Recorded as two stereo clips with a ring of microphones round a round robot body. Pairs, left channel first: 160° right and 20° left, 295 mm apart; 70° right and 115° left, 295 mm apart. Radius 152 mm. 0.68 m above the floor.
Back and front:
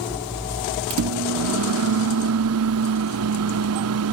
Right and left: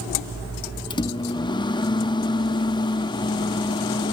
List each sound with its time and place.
0.9 s a microwave: 5° left